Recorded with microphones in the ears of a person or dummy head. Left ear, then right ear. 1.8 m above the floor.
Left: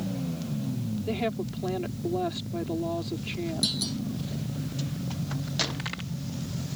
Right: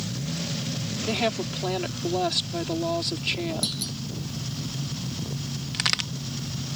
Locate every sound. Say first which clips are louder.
1.1 s a woman speaking: right 4 dB; 45° right (ahead or behind)
3.6 s a clunk: left 1 dB; 5° left (ahead or behind)
5.7 s a crack: right 11 dB; 60° right (ahead or behind)